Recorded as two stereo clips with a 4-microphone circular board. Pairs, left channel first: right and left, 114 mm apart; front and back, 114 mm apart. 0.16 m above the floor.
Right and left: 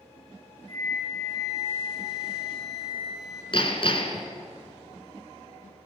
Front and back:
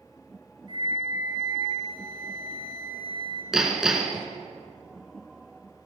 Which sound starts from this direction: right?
Hammering, at 3.5 s.